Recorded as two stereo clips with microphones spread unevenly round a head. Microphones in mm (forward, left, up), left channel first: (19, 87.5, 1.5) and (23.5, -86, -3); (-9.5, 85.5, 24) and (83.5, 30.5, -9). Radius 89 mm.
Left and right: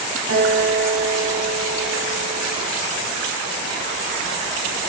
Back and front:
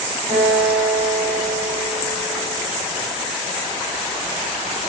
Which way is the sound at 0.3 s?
90° right.